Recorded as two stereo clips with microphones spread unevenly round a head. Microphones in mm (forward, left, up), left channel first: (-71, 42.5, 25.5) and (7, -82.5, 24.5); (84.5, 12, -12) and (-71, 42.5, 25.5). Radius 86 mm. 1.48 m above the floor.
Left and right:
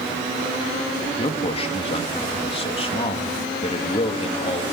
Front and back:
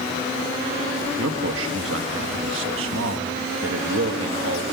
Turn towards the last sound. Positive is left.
turn(degrees=175)